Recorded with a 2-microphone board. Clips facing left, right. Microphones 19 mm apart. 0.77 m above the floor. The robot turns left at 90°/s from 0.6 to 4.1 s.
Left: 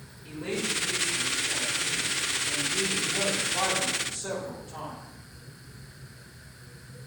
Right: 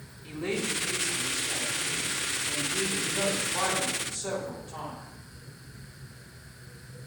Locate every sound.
0.2 s a woman speaking: 75° right, 4 m; by 5.0 s 30° right, 4 m